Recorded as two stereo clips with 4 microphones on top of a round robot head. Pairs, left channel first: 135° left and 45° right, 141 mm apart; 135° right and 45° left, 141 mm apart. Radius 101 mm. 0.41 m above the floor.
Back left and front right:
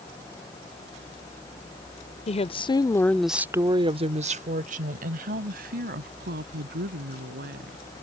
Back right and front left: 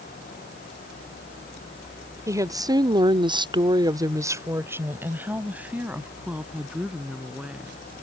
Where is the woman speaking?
105° left; by 7.8 s 45° right.